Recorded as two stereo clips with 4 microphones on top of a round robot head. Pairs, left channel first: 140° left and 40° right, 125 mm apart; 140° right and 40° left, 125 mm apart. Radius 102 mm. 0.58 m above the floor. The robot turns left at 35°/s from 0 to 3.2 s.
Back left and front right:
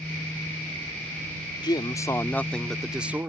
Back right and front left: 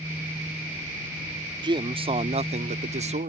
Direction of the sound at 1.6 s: 90° left.